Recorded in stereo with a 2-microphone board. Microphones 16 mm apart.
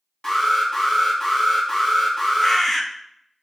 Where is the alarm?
30° left (ahead or behind), 1.8 m.